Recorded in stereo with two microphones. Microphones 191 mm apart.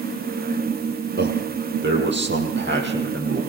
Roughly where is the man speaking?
Right.